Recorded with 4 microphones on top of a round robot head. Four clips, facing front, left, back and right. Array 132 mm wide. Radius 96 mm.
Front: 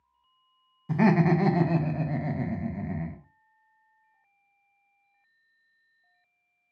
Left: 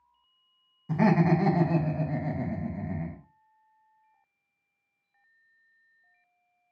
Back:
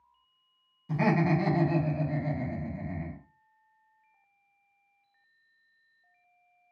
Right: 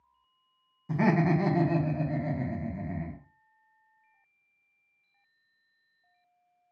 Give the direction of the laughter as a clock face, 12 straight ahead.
12 o'clock.